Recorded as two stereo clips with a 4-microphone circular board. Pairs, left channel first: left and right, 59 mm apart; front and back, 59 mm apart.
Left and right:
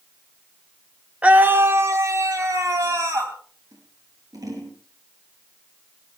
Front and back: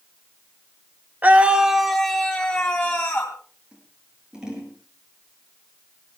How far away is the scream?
About 1.0 m.